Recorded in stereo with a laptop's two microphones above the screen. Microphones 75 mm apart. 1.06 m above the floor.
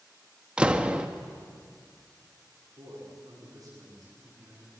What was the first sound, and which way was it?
A door slam, 15° right (ahead or behind).